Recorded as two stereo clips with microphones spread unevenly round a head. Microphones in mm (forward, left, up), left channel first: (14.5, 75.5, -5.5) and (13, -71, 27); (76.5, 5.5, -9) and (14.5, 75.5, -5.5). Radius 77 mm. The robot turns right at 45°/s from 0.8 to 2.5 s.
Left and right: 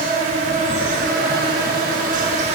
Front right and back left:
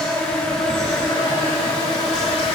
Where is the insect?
130° right, 4.5 m; by 2.6 s 50° right, 4.5 m.